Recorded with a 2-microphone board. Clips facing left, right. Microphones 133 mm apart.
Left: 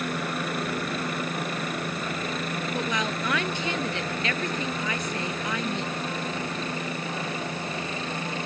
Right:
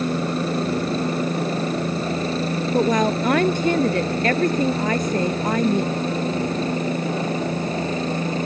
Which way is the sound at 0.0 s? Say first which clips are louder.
Right 7 dB; 30° right (ahead or behind).